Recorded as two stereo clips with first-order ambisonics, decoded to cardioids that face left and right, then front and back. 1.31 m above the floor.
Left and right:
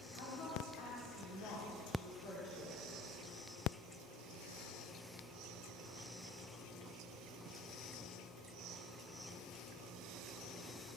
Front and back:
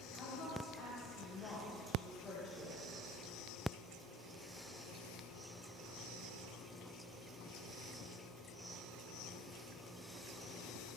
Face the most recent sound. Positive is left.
turn(degrees=75)